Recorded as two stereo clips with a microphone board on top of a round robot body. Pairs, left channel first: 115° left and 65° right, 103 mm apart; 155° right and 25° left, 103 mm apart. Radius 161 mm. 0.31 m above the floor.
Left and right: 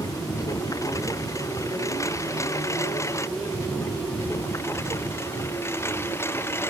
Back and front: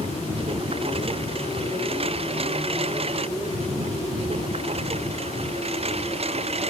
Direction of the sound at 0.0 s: 55° left.